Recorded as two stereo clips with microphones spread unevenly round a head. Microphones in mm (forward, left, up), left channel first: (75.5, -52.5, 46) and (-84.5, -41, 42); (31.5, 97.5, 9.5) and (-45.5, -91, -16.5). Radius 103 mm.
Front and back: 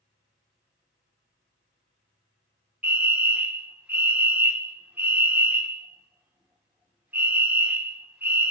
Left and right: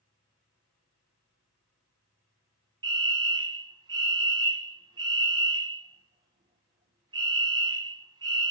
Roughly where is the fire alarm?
Behind right.